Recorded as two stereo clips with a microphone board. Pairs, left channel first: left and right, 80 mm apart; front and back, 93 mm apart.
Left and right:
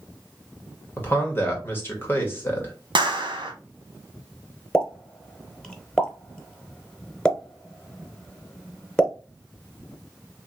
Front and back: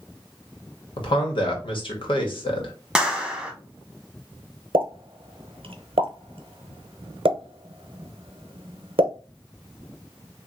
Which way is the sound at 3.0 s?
95° right.